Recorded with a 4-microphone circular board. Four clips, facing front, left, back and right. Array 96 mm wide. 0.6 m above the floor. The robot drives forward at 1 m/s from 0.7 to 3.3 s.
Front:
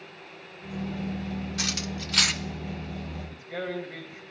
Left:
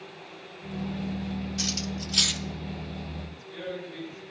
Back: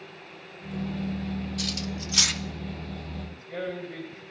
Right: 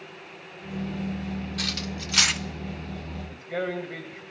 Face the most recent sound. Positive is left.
turn(degrees=-80)